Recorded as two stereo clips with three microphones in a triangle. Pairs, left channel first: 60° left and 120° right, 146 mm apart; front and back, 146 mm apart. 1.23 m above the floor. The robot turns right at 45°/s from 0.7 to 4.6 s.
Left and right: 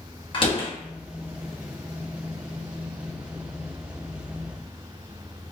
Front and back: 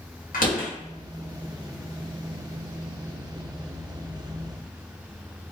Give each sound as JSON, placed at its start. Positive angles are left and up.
{"t": 0.3, "sound": "a door slam", "azimuth_deg": 10, "distance_m": 1.2}